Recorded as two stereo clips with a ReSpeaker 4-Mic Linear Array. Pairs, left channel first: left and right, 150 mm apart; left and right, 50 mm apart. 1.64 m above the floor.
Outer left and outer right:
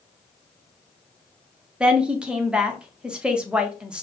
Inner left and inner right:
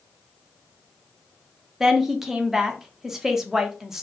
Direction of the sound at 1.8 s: 5° right (ahead or behind).